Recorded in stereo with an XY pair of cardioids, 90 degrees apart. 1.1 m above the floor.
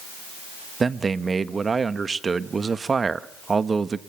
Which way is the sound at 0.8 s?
40° right.